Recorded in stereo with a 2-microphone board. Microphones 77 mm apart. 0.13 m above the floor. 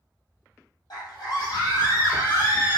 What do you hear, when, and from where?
0.9 s a scream: 55° left (ahead or behind), 4.5 m; by 2.8 s 40° left (ahead or behind), 4.5 m